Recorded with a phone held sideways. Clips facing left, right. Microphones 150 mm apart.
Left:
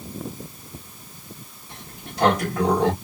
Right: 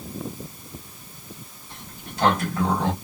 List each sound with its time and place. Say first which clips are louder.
1.7 s a sliding door: left 1 dB; 80° left, 2.0 m